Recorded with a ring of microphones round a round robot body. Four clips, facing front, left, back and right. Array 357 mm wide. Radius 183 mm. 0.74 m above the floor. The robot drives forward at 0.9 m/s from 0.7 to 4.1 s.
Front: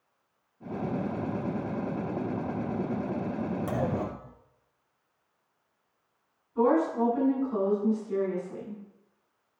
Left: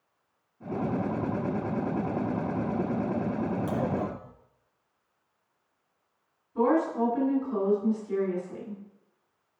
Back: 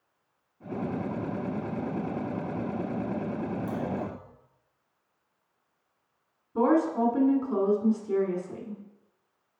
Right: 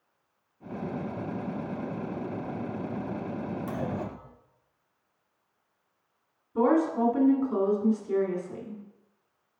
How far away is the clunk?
About 0.7 m.